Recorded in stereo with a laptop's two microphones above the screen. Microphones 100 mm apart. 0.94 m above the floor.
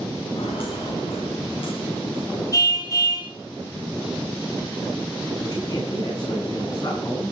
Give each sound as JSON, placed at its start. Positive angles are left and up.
{"t": 0.3, "sound": "footsteps", "side_deg": 65, "distance_m": 9.0}
{"t": 2.5, "sound": "a car horn", "side_deg": 35, "distance_m": 3.0}
{"t": 5.4, "sound": "a man speaking", "side_deg": 45, "distance_m": 9.5}